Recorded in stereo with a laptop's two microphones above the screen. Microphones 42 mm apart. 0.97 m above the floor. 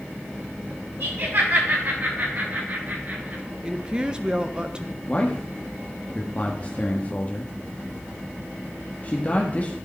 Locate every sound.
1.0 s laughter: 60° right (ahead or behind), 6.5 m; by 3.4 s 45° right (ahead or behind), 7 m
3.6 s a woman speaking: 20° right (ahead or behind), 0.5 m
5.1 s a man speaking: 35° left (ahead or behind), 1.5 m